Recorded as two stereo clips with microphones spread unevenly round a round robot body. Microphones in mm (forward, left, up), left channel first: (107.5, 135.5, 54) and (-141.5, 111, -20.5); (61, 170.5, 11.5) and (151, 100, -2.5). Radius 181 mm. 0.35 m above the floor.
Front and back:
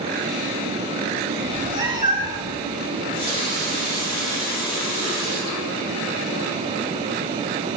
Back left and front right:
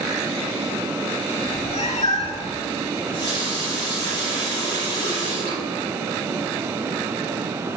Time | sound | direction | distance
1.4 | a cat meowing | 120° left | 1.4 m
3.0 | a running tap | 75° right | 3 m